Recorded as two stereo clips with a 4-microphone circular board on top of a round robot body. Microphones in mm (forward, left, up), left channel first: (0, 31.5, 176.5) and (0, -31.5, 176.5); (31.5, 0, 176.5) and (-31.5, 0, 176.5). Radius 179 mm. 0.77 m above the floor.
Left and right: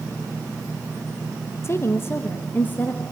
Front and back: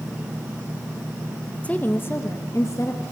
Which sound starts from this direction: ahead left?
A woman speaking, at 1.6 s.